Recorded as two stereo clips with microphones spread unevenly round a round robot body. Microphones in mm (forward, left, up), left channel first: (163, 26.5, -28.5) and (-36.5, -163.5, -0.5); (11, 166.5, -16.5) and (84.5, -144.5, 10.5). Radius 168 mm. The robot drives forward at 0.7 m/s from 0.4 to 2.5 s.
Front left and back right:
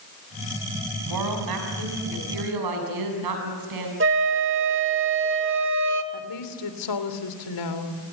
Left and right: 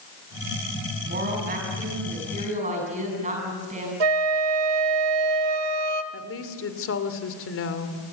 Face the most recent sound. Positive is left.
turn(degrees=55)